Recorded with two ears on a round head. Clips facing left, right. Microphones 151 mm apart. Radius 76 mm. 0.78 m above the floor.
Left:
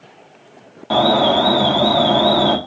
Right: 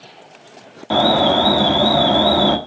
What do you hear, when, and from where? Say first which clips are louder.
0.9 s an alarm: left 1 dB; 5° right (ahead or behind), 0.7 m